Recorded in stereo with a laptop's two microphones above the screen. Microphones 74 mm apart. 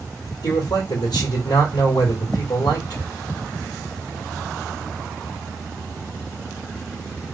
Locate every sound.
0.4 s a man speaking: 75° left (ahead or behind), 2.5 m